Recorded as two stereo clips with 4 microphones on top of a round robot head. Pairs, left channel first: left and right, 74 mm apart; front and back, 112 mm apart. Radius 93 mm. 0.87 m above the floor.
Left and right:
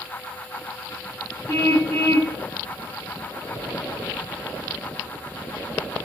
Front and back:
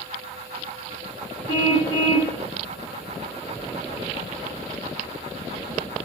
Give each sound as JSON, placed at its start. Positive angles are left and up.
{"t": 1.5, "sound": "a car horn", "azimuth_deg": -65, "distance_m": 5.0}